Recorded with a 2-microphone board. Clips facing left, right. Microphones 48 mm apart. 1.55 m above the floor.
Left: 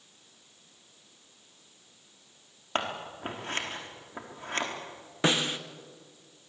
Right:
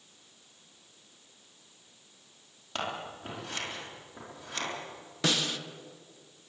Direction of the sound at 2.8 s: 40° left (ahead or behind).